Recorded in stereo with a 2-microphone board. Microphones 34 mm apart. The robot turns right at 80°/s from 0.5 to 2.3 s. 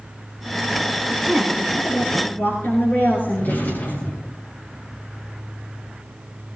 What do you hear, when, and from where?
1.1 s a woman speaking: 15° right, 9.5 m; by 4.0 s 80° left, 9.5 m
3.3 s a drawer: 65° left (ahead or behind), 5.5 m